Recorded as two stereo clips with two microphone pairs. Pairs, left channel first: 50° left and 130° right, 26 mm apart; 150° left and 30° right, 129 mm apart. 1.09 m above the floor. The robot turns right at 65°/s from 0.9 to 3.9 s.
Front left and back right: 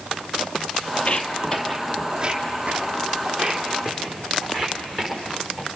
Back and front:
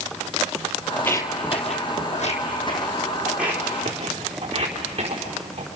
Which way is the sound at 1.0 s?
70° left.